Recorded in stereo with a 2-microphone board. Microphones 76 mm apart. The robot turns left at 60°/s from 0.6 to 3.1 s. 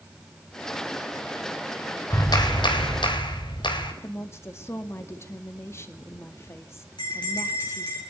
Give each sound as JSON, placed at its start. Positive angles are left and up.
{"t": 2.1, "sound": "a clap", "azimuth_deg": 135, "distance_m": 3.5}
{"t": 4.0, "sound": "a woman speaking", "side_deg": 35, "distance_m": 1.9}
{"t": 7.0, "sound": "a bell", "side_deg": 65, "distance_m": 9.5}